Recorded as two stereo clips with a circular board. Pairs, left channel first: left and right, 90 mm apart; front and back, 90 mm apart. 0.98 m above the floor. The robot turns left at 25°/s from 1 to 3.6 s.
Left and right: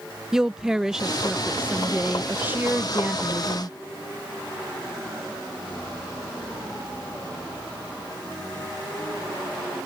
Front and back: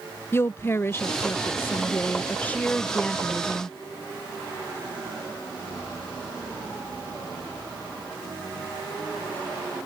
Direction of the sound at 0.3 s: 15° right.